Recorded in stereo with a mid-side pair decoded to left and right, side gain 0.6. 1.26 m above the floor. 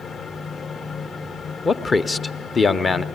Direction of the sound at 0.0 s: 40° left.